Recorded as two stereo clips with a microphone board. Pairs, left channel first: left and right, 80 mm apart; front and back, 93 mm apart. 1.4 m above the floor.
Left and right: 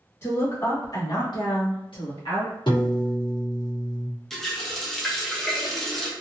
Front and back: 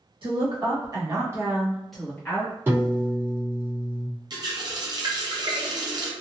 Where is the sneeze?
No sneeze in this recording.